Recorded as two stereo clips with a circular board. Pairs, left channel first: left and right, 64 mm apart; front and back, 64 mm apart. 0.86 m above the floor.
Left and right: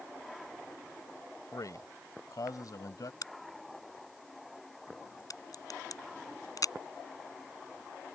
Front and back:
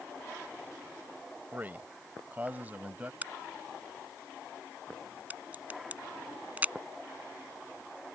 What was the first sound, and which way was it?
A man speaking, 120° left.